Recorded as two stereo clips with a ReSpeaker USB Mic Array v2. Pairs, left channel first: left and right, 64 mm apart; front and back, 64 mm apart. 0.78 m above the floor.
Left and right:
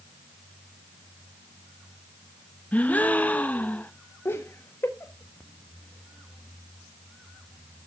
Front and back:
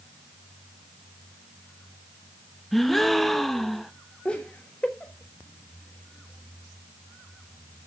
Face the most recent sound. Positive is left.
turn(degrees=65)